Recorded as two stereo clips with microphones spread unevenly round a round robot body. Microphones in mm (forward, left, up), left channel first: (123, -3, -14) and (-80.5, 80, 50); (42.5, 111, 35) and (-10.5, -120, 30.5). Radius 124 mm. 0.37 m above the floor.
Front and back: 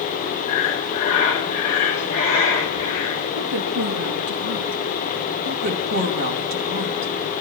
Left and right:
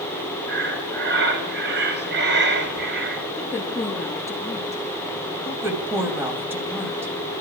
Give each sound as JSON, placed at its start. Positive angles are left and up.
{"t": 0.5, "sound": "breathing", "azimuth_deg": -65, "distance_m": 2.5}
{"t": 3.4, "sound": "a woman speaking", "azimuth_deg": 155, "distance_m": 5.5}
{"t": 5.5, "sound": "a woman speaking", "azimuth_deg": 180, "distance_m": 3.0}